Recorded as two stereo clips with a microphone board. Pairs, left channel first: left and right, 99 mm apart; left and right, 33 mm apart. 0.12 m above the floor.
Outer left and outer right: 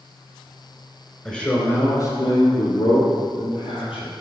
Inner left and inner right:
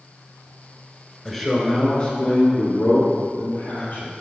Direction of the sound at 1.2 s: 5° left (ahead or behind).